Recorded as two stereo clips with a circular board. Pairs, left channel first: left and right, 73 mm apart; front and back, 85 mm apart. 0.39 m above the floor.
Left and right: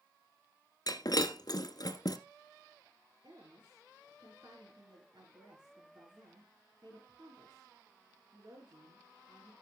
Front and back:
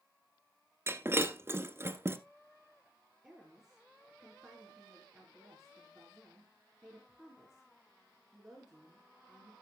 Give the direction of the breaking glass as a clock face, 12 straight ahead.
8 o'clock.